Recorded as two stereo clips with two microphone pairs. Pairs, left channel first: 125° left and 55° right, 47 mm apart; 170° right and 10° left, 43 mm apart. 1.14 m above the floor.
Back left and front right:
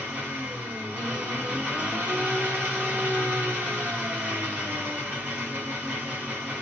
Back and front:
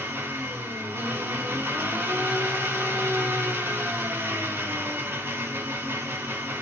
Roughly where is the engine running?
Ahead.